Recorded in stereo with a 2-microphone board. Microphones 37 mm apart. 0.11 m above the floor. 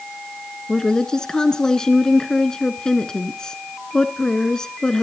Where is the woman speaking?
20° left (ahead or behind), 1.0 m.